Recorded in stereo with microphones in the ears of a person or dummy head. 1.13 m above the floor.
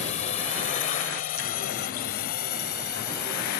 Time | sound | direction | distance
0.0 | a drone | 35° left (ahead or behind) | ?